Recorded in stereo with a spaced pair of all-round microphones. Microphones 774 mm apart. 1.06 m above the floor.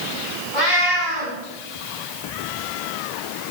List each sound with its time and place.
0.5 s a cat meowing: 80° left, 4.5 m